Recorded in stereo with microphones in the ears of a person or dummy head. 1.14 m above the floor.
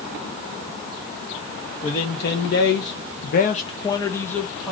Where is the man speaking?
55° left (ahead or behind), 0.8 m; by 4.7 s 5° right (ahead or behind), 0.9 m.